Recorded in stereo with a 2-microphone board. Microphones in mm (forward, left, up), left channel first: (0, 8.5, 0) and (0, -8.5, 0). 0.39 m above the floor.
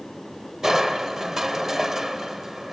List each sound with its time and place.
0.6 s crushing: 25° right (ahead or behind), 1.0 m